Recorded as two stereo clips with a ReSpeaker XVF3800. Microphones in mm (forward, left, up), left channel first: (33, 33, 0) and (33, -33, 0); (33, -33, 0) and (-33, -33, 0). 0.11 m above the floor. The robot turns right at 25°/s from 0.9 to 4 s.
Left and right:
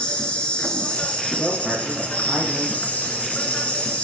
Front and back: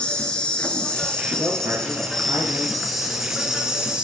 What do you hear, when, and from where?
0.0 s an insect: 45° left, 0.8 m; by 4.0 s 120° left, 0.8 m
1.4 s a woman speaking: 175° left, 1.8 m; by 2.8 s 150° right, 1.8 m